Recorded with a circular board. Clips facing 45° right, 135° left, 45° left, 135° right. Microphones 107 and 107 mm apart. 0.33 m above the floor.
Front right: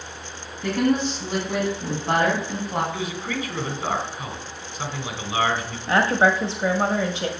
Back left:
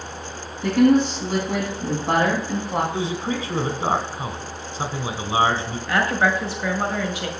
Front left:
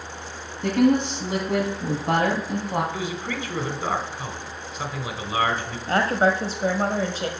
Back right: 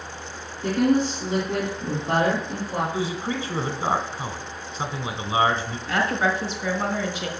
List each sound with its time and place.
0.6 s a woman speaking: 60° left, 2 m
2.9 s a man speaking: 160° left, 1.2 m
5.9 s a woman speaking: 10° left, 1.4 m